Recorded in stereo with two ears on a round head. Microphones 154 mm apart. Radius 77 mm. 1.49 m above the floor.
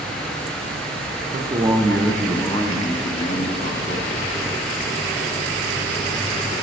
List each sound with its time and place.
1.3 s a man speaking: 35° right (ahead or behind), 0.7 m; by 4.2 s 50° left (ahead or behind), 1.5 m